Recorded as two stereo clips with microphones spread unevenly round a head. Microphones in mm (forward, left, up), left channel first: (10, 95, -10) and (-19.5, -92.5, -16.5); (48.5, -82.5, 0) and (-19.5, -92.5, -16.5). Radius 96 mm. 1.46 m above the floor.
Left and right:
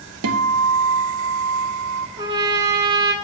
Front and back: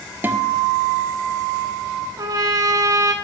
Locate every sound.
0.2 s a guitar: 110° right, 0.8 m
2.2 s a trumpet: 150° right, 1.1 m